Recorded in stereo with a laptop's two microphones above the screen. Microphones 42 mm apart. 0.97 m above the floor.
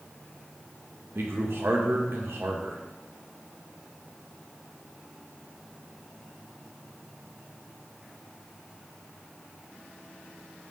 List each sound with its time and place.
1.1 s a man speaking: 65° right (ahead or behind), 0.8 m